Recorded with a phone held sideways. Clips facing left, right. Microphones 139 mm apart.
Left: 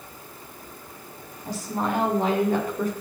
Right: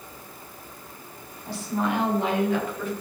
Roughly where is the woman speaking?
Left.